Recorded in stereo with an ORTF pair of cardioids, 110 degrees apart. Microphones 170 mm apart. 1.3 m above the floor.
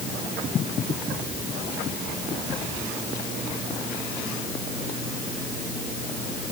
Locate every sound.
Only background noise.